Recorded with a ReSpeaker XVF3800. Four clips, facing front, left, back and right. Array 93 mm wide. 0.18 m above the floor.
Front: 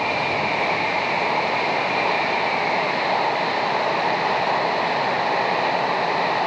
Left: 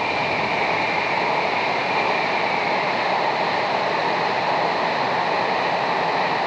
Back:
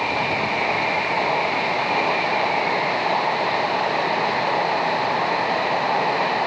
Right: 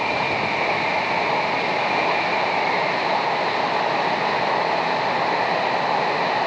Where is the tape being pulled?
No tape being pulled in this recording.